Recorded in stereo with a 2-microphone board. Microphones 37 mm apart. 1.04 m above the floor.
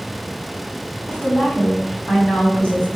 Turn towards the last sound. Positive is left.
turn(degrees=30)  # may be behind; listen again after turning